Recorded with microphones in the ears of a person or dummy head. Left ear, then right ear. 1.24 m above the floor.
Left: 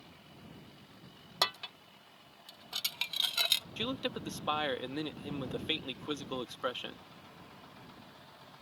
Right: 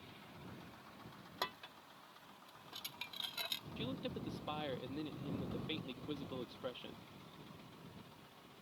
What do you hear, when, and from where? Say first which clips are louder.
1.4 s dishes clattering: left 11 dB; 30° left (ahead or behind)
3.8 s a man speaking: left 8 dB; 50° left (ahead or behind)